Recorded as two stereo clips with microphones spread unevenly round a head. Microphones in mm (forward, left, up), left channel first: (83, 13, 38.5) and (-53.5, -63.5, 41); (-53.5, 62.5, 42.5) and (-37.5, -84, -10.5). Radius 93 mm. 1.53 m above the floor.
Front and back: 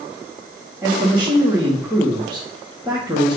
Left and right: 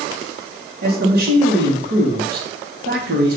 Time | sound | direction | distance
0.8 | a man speaking | 70° right | 1.4 m